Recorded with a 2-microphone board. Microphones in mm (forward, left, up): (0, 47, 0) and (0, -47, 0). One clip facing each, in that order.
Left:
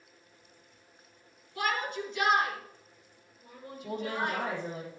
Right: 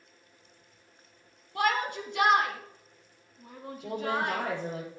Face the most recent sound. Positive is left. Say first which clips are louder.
# right 3 dB
turn(degrees=-80)